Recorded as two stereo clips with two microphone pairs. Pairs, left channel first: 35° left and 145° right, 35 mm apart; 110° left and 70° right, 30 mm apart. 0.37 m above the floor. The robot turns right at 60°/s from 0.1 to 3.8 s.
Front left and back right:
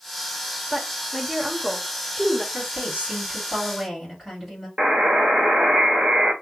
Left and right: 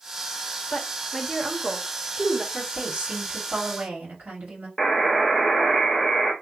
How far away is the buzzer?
About 1.1 m.